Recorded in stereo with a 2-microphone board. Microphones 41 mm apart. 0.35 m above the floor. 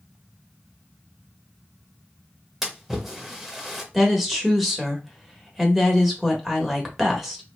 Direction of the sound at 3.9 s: Centre (ahead or behind).